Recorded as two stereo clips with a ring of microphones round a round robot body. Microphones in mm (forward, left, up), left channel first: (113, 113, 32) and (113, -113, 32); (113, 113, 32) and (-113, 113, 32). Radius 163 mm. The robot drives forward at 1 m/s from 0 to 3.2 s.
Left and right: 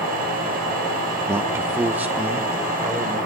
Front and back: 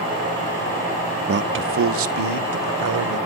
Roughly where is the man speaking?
Behind.